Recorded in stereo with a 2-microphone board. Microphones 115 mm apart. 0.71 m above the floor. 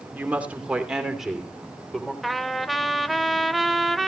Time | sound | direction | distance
0.1 | a woman speaking | 15° right (ahead or behind) | 2.5 m
2.2 | a trumpet | centre (ahead or behind) | 0.8 m